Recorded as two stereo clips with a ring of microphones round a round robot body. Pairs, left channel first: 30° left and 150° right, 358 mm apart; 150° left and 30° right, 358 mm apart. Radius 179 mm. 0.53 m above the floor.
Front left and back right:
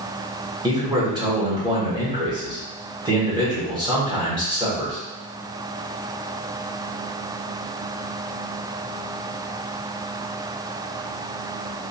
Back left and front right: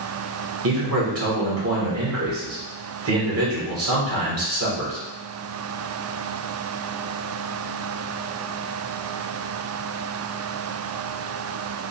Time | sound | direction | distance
0.6 | a man speaking | 75° right | 1.8 m